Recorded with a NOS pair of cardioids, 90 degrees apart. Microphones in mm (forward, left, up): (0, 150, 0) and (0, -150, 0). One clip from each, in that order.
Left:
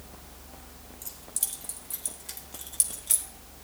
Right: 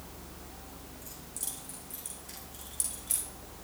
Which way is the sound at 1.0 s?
70° left.